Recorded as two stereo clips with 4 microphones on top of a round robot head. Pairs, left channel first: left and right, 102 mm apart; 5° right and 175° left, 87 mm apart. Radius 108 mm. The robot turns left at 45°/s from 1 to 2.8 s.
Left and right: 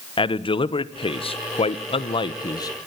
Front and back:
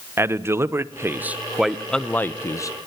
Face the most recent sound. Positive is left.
turn(degrees=35)